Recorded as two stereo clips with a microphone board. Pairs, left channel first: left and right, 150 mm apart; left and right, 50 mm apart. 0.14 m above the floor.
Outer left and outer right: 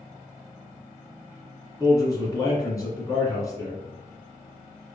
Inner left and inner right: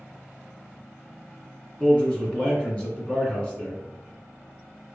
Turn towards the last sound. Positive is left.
turn(degrees=25)  # may be behind; listen again after turning